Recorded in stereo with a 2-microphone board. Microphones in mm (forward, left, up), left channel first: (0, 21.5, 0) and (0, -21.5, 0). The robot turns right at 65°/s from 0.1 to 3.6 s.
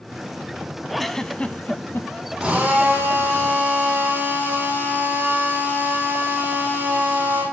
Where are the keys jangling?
I don't hear keys jangling.